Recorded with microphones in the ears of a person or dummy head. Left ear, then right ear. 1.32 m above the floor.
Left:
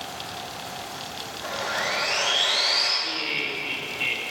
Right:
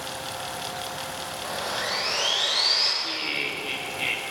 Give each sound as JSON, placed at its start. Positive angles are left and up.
{"t": 1.4, "sound": "sawing", "side_deg": 50, "distance_m": 4.0}
{"t": 3.0, "sound": "laughter", "side_deg": -5, "distance_m": 2.0}